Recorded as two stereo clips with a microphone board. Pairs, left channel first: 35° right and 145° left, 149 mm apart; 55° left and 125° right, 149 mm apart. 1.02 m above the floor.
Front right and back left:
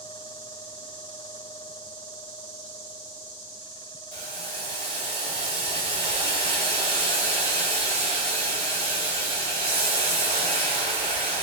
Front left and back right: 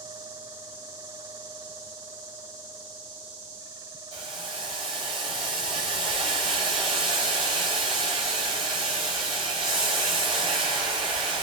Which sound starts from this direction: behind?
Boiling, at 4.1 s.